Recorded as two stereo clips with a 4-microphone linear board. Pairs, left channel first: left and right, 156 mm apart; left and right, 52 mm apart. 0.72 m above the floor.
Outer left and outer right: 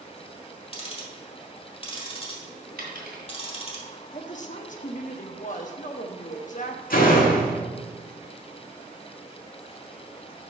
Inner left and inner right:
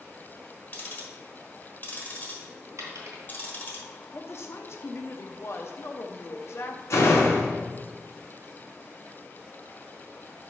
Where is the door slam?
65° left (ahead or behind), 1.5 m.